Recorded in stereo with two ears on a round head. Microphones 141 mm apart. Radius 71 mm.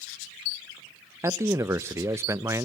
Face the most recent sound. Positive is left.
turn(degrees=-15)  # may be behind; listen again after turning